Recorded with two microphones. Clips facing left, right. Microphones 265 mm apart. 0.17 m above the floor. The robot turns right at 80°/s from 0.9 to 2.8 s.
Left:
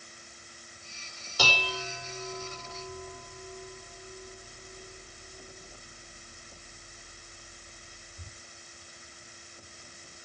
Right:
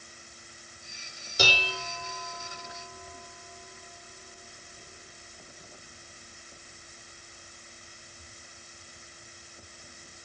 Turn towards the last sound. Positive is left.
turn(degrees=45)  # may be behind; listen again after turning